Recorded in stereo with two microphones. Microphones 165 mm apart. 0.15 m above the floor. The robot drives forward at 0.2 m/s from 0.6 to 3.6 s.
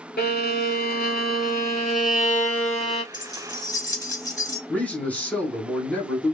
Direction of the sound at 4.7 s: 10° left (ahead or behind).